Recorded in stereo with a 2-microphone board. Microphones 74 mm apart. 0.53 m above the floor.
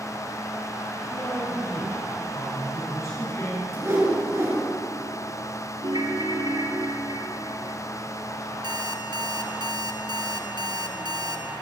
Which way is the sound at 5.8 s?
80° right.